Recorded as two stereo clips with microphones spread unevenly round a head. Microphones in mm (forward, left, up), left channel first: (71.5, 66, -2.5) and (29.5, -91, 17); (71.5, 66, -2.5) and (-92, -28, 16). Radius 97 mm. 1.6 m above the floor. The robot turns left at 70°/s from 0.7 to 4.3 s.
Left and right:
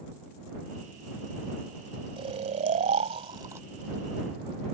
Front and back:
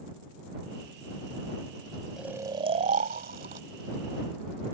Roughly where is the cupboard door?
I don't hear a cupboard door.